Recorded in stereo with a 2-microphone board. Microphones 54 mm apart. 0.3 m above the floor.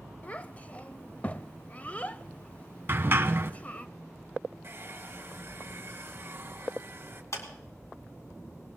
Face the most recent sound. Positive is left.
turn(degrees=60)  # may be behind; listen again after turning